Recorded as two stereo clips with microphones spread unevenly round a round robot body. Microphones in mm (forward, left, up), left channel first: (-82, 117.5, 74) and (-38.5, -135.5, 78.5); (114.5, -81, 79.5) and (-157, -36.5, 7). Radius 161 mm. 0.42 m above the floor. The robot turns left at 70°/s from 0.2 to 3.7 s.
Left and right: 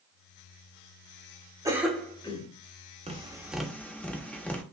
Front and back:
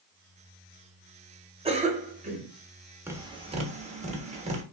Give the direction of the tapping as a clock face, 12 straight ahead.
4 o'clock.